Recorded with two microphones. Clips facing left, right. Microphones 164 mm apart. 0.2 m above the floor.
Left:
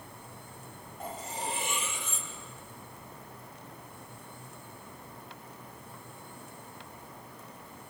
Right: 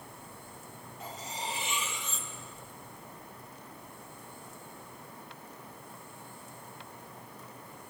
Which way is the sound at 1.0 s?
50° left (ahead or behind).